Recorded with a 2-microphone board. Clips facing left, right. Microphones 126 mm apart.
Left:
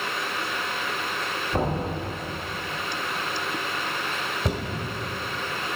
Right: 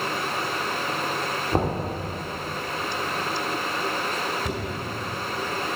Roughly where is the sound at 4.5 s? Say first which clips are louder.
Even; left.